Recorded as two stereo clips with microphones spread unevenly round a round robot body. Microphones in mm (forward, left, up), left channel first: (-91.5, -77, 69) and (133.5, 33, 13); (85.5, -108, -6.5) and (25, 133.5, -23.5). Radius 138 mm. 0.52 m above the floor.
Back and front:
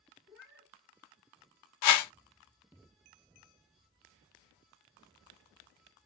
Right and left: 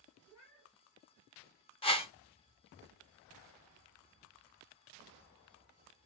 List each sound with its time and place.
0.3 s a cat meowing: 65° right, 4.5 m
1.8 s a whoosh: 145° right, 0.5 m